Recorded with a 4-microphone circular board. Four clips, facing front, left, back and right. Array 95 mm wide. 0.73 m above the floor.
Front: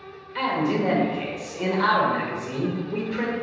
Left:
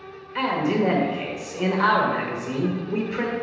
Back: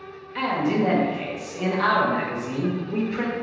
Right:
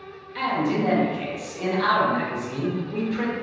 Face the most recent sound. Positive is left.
turn(degrees=100)